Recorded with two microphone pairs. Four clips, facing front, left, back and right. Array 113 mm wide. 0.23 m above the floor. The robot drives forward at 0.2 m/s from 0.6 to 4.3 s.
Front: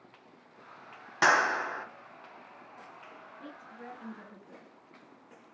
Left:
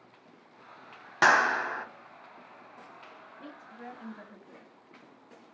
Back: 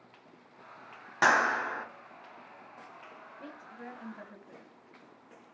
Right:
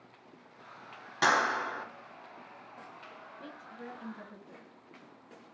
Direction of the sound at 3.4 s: 140° left.